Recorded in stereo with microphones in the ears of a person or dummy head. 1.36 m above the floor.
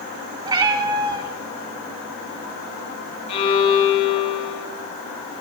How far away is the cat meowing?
About 2 m.